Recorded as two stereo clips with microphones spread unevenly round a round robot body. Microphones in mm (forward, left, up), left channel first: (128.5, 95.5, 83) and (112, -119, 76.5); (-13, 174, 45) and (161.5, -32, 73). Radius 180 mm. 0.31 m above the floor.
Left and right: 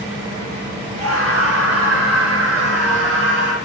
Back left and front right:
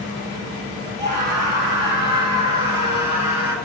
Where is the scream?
120° right, 7 m; by 3.5 s 130° right, 5.5 m.